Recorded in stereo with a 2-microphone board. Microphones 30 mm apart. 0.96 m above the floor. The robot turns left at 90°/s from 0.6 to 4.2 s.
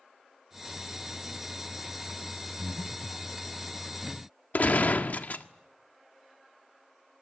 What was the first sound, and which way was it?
Breathing, 160° right.